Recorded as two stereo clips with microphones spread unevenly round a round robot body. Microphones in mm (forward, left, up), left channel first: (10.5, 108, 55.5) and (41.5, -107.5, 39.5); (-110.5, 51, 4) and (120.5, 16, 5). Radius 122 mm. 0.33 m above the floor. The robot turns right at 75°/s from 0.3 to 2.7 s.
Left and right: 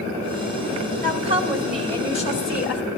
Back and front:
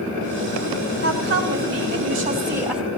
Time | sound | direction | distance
1.0 | a woman speaking | 50° right | 1.9 m